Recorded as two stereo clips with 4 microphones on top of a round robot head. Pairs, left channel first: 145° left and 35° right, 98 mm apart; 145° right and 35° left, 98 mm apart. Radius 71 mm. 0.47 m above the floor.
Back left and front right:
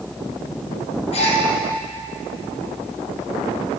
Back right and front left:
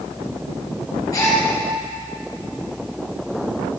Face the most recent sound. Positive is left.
turn(degrees=160)